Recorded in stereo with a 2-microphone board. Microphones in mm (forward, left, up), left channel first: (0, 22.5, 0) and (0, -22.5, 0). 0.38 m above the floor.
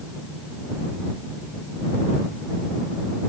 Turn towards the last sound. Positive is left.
No sound to turn to.